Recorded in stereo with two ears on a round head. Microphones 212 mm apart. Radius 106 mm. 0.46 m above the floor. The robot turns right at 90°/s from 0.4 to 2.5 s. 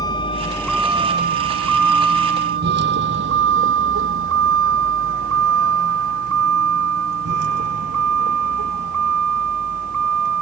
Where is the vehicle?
15° left (ahead or behind); by 10.4 s 70° right (ahead or behind).